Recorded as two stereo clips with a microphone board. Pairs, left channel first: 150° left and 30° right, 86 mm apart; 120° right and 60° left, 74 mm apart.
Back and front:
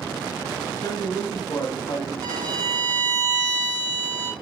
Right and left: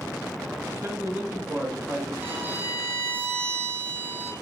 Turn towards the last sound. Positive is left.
turn(degrees=0)